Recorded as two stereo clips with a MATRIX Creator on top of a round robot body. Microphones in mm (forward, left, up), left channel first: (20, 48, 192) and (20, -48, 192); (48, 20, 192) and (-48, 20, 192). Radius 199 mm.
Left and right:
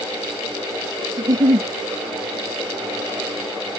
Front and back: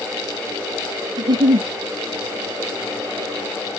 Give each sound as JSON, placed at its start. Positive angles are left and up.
{"t": 1.2, "sound": "a giggle", "azimuth_deg": -140}